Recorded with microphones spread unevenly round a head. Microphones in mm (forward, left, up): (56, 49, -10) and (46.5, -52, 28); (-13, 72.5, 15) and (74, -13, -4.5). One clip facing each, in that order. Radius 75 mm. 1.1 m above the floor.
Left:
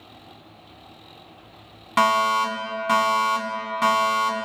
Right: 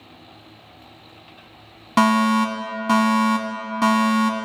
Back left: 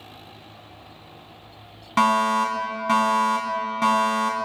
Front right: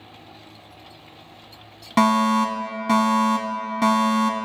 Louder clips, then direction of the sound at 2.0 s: Right 3 dB, front right 2 dB; 30° right.